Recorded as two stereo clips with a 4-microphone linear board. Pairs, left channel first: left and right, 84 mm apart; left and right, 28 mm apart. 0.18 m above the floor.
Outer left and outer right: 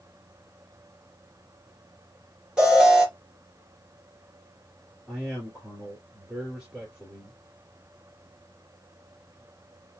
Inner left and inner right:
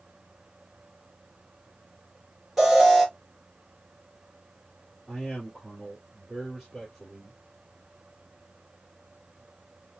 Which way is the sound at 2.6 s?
10° right (ahead or behind).